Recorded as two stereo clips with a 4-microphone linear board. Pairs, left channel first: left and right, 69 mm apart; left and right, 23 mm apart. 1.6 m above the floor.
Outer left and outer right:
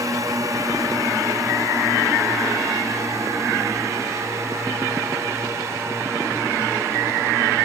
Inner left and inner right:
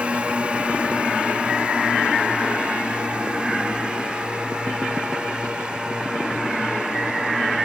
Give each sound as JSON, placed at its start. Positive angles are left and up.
{"t": 0.0, "sound": "a drone", "side_deg": -60}